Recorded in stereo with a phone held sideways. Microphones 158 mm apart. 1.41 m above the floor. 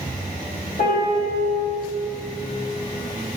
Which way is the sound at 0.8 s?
60° left (ahead or behind).